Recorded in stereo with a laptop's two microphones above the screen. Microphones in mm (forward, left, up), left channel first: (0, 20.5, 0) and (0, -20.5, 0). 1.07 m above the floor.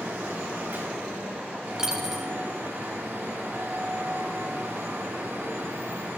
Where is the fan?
75° right (ahead or behind), 7 m.